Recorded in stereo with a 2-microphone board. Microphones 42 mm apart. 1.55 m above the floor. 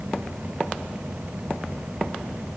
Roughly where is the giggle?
I don't hear a giggle.